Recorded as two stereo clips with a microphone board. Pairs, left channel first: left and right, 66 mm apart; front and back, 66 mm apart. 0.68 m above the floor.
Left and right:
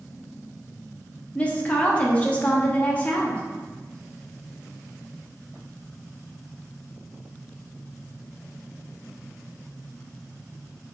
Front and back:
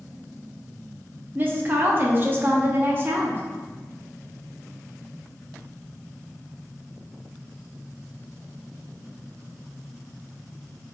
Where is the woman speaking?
145° left, 0.6 m.